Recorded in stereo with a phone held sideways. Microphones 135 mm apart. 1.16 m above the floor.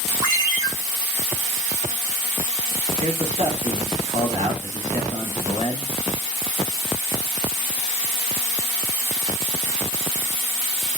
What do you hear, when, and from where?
0.2 s a ringtone: 35° right (ahead or behind), 1.8 m
3.0 s a man speaking: 55° right (ahead or behind), 1.8 m